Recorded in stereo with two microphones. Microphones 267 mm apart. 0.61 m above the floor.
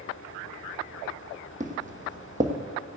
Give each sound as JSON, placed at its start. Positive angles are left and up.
{"t": 1.6, "sound": "footsteps", "side_deg": -25, "distance_m": 1.3}